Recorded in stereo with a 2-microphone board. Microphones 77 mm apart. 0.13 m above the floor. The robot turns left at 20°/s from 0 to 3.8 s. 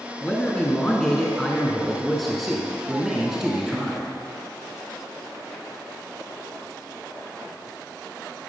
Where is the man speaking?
15° left (ahead or behind), 1.3 m; by 4.2 s 10° right (ahead or behind), 1.3 m.